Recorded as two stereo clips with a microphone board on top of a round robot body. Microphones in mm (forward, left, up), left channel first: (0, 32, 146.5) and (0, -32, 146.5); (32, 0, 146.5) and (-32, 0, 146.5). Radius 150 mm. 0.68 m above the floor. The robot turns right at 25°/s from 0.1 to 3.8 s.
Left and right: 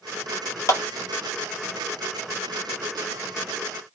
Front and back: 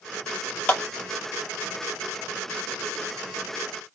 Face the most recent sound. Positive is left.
turn(degrees=145)